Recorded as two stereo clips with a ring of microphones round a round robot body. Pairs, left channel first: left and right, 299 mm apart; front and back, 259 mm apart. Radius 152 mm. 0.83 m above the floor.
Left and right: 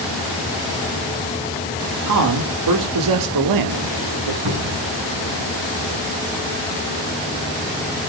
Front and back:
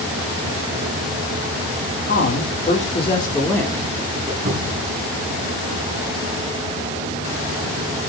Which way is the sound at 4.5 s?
120° right.